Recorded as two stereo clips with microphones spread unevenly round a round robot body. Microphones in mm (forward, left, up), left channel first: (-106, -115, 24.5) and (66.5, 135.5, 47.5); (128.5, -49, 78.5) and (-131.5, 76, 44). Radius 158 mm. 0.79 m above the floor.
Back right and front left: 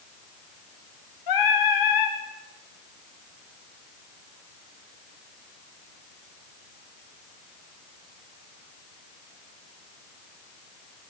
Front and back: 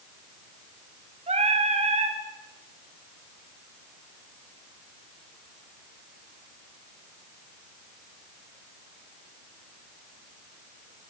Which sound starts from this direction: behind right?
Singing, at 1.3 s.